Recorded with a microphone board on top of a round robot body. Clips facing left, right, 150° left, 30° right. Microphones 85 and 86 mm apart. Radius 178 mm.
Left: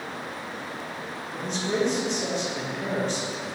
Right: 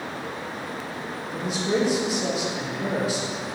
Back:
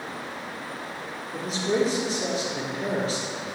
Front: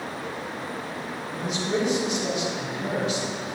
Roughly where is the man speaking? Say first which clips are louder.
Right 2 dB, back 2 dB; behind.